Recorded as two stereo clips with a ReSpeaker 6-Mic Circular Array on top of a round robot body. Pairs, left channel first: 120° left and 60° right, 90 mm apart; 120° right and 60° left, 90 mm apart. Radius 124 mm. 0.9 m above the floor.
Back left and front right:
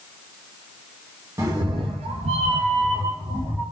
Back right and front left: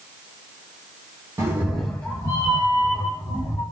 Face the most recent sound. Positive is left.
turn(degrees=-100)